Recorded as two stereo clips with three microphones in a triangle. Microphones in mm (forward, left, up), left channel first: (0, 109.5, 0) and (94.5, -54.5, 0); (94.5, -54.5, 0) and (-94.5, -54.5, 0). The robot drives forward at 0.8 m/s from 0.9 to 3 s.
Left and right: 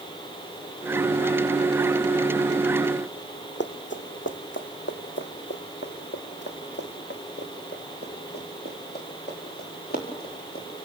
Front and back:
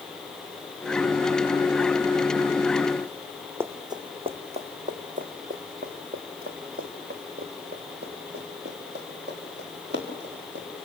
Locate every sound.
3.6 s running footsteps: 105° left, 1.3 m; by 10.9 s 155° left, 7 m